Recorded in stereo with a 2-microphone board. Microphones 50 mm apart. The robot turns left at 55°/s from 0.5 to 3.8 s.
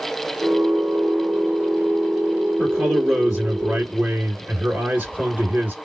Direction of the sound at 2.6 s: 25° left.